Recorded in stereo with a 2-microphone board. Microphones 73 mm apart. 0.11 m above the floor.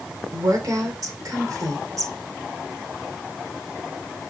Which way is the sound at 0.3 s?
55° right (ahead or behind).